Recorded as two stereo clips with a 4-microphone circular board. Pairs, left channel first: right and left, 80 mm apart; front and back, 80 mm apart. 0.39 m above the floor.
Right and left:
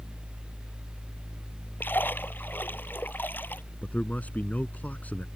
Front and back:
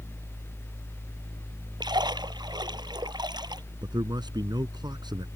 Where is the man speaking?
160° right.